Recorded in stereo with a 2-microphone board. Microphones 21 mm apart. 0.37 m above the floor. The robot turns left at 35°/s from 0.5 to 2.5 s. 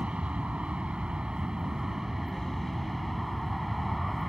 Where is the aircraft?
100° right; by 4.3 s 170° right.